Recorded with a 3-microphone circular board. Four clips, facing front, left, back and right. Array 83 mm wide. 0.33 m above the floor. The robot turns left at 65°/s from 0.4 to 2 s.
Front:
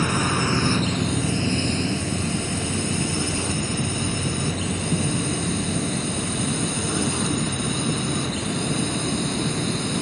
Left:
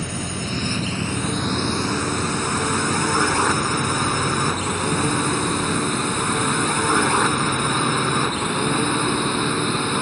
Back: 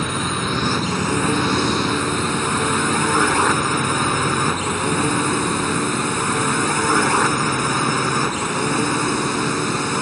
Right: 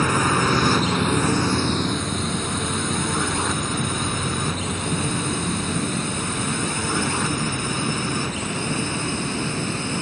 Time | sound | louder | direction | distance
0.0 | a drone | right 9 dB, even | 95° right | ?